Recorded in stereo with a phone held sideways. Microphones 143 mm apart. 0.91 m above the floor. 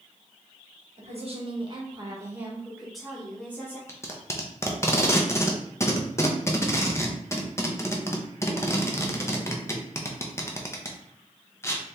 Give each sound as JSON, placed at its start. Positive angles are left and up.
{"t": 1.0, "sound": "a woman speaking", "side_deg": -55, "distance_m": 1.3}
{"t": 3.9, "sound": "tape being pulled", "side_deg": 20, "distance_m": 0.7}